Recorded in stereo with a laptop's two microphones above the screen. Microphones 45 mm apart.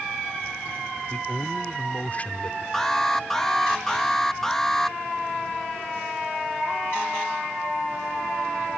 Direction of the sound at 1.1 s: 35° left (ahead or behind).